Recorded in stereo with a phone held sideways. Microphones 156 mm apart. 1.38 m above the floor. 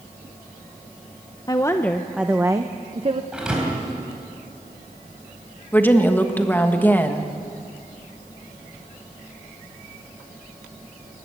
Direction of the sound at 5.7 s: 10° left (ahead or behind).